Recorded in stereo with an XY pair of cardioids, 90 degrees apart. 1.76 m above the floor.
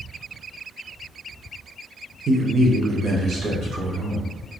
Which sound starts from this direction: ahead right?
A man speaking, at 2.3 s.